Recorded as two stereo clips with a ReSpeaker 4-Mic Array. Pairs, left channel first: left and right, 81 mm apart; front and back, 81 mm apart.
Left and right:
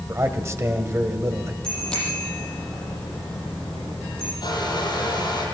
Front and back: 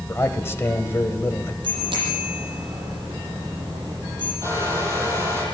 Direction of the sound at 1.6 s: 170° left.